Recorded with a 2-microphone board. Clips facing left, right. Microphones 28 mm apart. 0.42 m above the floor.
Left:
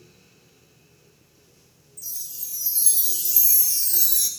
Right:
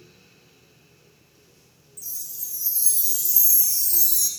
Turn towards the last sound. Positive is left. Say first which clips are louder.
# left 1 dB
turn(degrees=40)  # may be behind; listen again after turning